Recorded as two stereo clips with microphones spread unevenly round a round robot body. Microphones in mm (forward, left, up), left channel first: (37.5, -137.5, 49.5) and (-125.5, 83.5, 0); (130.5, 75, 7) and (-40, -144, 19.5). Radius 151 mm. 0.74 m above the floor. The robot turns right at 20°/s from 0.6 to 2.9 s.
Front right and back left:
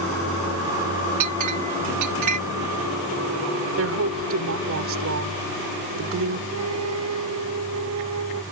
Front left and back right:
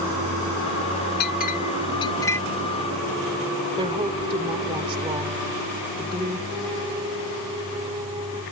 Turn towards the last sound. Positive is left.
turn(degrees=155)